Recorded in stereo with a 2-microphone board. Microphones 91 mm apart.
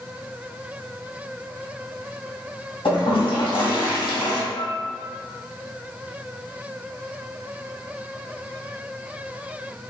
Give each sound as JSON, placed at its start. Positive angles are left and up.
{"t": 2.9, "sound": "a toilet flushing", "side_deg": 70, "distance_m": 1.6}
{"t": 4.6, "sound": "a flute", "side_deg": 55, "distance_m": 0.5}